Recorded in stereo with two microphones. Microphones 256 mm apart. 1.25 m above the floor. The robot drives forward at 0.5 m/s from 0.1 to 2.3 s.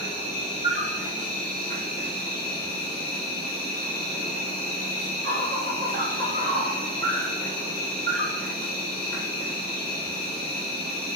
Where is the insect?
20° right (ahead or behind), 1.3 m; by 11.2 s 40° right (ahead or behind), 0.8 m.